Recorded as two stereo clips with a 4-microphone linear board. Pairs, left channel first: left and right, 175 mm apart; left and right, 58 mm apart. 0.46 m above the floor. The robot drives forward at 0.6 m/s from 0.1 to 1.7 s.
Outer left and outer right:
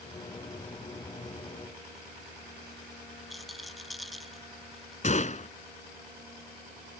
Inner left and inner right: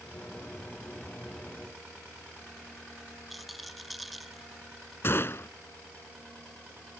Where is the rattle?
Centre (ahead or behind).